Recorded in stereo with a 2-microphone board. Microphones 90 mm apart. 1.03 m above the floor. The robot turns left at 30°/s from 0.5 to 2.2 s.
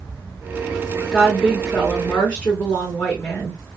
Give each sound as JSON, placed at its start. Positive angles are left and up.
{"t": 1.1, "sound": "a woman speaking", "azimuth_deg": -170, "distance_m": 1.0}